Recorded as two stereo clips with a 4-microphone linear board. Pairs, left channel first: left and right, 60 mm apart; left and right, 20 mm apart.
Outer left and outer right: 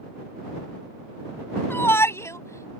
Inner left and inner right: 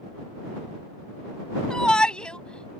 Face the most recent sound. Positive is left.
turn(degrees=60)  # may be behind; listen again after turning